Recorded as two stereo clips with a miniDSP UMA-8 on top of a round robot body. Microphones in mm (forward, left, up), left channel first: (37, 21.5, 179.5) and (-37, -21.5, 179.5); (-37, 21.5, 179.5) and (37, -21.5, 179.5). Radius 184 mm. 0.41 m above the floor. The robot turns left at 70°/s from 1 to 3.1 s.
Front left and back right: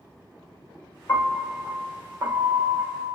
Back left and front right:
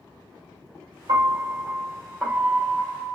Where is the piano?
30° right, 2 m; by 3.1 s 170° right, 2 m.